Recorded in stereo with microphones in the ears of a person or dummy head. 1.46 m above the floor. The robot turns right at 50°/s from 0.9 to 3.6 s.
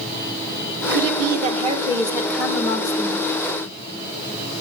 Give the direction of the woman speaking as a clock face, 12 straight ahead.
2 o'clock.